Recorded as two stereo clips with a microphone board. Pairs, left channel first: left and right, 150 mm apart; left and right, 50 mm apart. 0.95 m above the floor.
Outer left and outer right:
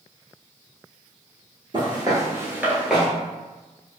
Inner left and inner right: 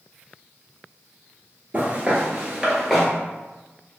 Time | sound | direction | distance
1.7 | footsteps | 35° right (ahead or behind) | 1.1 m